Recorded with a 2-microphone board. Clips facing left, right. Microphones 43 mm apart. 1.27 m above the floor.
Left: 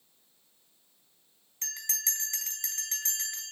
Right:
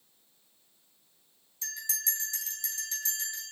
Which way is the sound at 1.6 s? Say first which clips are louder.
Even; 50° left (ahead or behind).